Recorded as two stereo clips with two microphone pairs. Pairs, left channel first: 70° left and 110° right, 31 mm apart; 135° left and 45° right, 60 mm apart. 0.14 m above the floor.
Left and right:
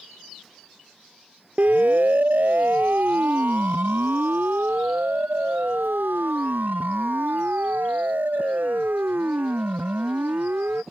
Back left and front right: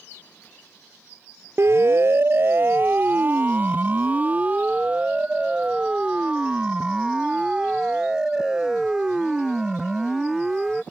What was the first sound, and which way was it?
A siren, 80° right.